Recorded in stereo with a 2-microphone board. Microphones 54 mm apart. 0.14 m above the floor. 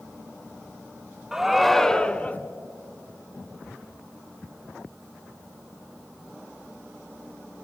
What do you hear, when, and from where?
1.3 s a shout: 10° right (ahead or behind), 1.0 m; by 2.4 s 25° left (ahead or behind), 1.1 m